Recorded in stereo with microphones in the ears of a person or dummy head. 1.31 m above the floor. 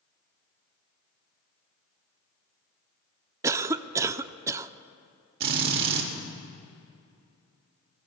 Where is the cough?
15° right (ahead or behind), 0.5 m.